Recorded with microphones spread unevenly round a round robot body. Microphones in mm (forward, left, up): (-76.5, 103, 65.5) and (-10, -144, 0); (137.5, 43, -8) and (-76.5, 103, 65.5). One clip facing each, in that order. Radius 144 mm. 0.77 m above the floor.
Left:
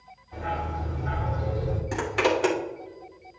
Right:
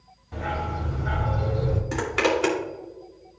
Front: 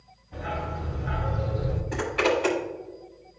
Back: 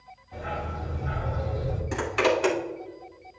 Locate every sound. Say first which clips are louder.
0.3 s a dog barking: right 2 dB, front 1 dB; 115° right, 2 m
1.9 s a zipper: even, even; 145° right, 2.5 m